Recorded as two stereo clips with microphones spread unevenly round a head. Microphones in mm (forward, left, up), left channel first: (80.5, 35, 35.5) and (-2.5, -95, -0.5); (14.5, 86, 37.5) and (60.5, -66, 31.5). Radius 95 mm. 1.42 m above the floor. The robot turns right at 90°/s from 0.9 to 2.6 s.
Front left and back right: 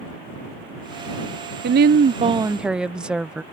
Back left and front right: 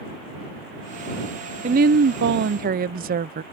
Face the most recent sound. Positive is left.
turn(degrees=-40)